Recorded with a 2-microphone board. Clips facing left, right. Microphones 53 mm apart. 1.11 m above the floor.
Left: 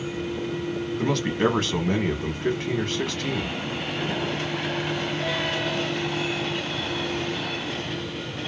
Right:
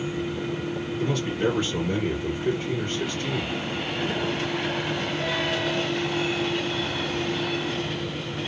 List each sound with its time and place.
1.0 s a man speaking: 70° left (ahead or behind), 1.1 m